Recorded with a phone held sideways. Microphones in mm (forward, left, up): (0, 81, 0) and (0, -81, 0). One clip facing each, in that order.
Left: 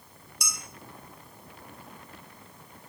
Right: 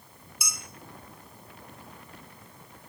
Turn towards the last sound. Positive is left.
turn(degrees=-5)  # may be behind; listen again after turning